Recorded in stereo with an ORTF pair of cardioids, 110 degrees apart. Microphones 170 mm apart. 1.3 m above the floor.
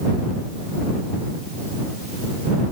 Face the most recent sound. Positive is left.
No sound to turn to.